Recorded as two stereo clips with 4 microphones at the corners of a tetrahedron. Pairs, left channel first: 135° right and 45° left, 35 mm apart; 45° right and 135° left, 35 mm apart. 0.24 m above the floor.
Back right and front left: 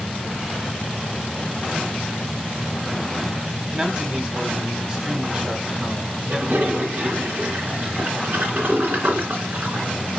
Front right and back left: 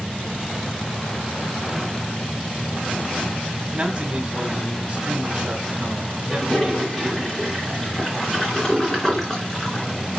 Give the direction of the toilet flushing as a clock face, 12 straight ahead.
11 o'clock.